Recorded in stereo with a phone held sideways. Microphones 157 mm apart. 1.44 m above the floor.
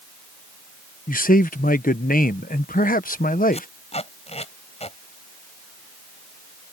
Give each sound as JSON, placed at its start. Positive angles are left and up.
{"t": 1.1, "sound": "a man speaking", "side_deg": 60}
{"t": 3.5, "sound": "tape being pulled", "side_deg": 40}